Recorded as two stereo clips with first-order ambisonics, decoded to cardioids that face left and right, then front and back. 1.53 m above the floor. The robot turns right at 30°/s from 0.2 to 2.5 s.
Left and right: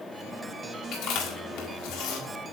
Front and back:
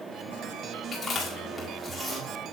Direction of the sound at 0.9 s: 60° left.